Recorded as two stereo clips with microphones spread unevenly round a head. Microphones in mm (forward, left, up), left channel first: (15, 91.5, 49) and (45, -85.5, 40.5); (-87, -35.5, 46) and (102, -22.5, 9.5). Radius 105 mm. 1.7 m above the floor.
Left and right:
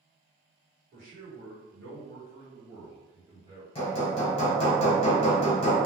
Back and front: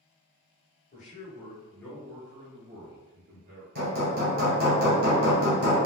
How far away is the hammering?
About 1.0 m.